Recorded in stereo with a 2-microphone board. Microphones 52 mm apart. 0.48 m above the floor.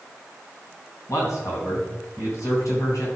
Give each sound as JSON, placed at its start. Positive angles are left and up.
{"t": 1.1, "sound": "a man speaking", "side_deg": 75, "distance_m": 3.0}